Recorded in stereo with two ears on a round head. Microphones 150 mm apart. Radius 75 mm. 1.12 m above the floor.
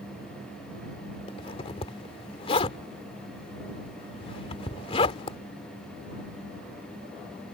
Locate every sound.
1.3 s a zipper: 35° left (ahead or behind)